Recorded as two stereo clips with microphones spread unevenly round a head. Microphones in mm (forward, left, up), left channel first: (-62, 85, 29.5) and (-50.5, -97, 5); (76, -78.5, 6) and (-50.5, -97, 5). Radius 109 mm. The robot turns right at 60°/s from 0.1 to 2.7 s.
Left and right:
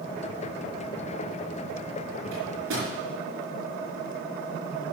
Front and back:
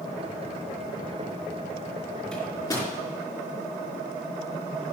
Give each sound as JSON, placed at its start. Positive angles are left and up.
{"t": 2.3, "sound": "a microwave", "azimuth_deg": -75, "distance_m": 4.5}